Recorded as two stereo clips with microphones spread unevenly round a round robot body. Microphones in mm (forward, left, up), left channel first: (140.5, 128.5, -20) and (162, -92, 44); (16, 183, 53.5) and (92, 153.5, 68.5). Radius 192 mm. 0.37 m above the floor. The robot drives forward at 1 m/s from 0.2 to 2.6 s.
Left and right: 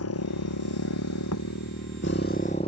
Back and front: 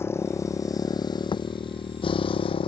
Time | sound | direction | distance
0.0 | a motorcycle | 100° left | ?
1.3 | a thud | 140° left | ?